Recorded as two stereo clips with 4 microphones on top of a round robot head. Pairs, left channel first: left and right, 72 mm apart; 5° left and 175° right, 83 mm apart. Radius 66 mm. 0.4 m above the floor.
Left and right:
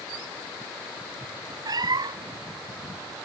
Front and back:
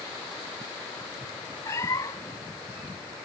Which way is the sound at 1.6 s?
60° right.